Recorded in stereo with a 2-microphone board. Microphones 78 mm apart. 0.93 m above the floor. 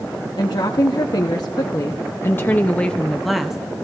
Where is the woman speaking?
70° left (ahead or behind), 1.5 m; by 3.6 s 5° right (ahead or behind), 1.1 m.